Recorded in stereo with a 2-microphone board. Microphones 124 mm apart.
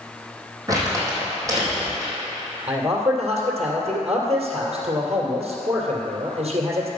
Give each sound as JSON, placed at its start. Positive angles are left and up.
{"t": 0.7, "sound": "crumpling", "side_deg": -30, "distance_m": 4.0}
{"t": 2.7, "sound": "a man speaking", "side_deg": -60, "distance_m": 2.5}